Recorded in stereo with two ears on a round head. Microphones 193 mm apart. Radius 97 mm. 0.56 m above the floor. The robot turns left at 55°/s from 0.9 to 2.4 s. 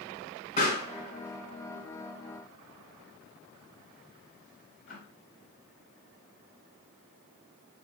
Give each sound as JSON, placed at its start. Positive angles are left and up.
{"t": 0.6, "sound": "a pop", "side_deg": 30, "distance_m": 2.5}